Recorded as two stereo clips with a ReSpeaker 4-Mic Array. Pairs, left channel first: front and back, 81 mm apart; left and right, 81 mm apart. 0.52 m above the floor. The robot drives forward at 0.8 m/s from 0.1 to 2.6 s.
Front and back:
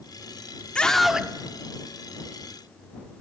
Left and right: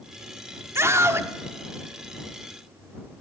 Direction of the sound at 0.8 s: 70° right.